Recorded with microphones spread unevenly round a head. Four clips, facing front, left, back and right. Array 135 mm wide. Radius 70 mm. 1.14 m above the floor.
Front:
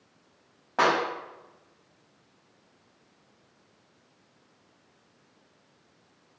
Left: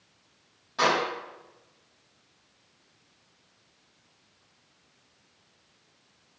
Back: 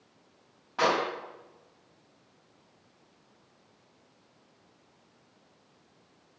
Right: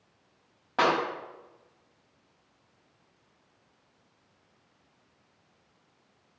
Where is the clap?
35° right, 6 m.